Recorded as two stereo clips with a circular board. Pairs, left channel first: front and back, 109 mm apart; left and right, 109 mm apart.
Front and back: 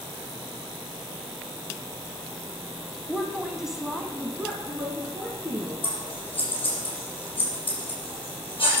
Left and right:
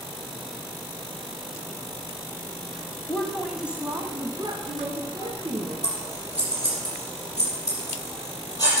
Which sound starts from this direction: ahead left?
Scissors, at 5.8 s.